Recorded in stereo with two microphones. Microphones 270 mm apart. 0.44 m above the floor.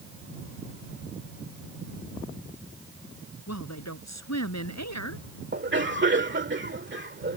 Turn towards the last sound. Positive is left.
turn(degrees=-45)  # may be behind; listen again after turning